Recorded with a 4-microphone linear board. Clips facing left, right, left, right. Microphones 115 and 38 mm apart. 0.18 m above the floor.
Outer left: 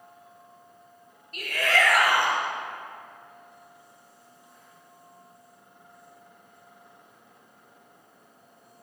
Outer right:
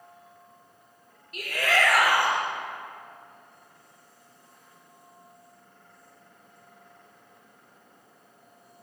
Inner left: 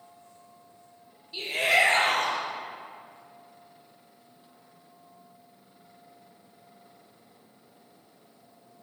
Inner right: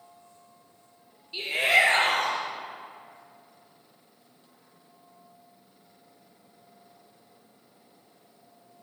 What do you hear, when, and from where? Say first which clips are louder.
1.3 s a shout: even, inner right 1 dB; 10° right (ahead or behind), 3 m